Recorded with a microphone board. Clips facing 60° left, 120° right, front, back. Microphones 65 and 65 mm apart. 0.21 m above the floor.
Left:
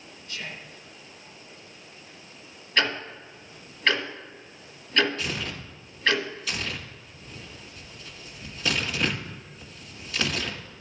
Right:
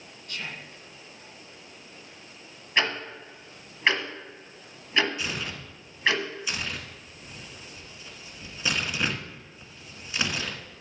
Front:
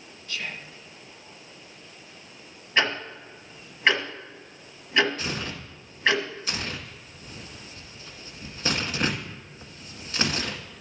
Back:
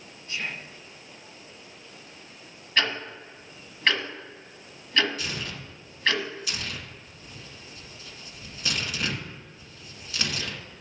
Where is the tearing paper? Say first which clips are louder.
Left 1 dB, front 2 dB; 50° right, 1.6 m.